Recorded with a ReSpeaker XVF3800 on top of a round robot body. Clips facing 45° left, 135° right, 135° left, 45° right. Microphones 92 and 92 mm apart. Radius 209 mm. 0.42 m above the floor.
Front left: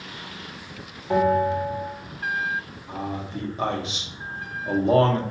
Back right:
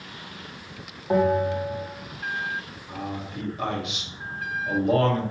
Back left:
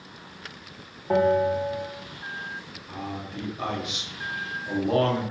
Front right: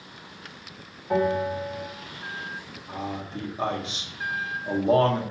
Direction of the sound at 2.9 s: Straight ahead.